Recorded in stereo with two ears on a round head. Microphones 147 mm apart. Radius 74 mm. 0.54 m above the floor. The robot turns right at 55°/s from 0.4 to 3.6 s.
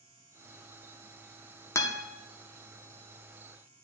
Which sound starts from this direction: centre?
A guitar, at 1.8 s.